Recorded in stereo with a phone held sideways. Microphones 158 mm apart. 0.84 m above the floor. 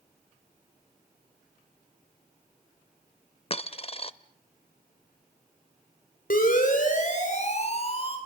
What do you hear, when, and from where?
3.5 s a dropped coin: 40° left (ahead or behind), 0.6 m
6.3 s a siren: 65° left (ahead or behind), 4.5 m; by 8.2 s 35° left (ahead or behind), 4.5 m